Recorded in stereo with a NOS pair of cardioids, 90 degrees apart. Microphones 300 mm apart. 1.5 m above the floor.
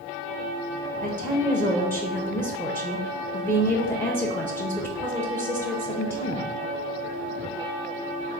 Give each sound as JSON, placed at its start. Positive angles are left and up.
{"t": 1.0, "sound": "a woman speaking", "azimuth_deg": 5, "distance_m": 0.7}